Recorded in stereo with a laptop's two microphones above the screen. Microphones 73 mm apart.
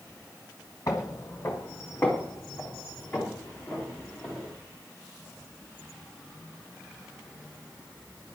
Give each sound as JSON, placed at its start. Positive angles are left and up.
{"t": 0.9, "sound": "footsteps", "side_deg": 45, "distance_m": 1.4}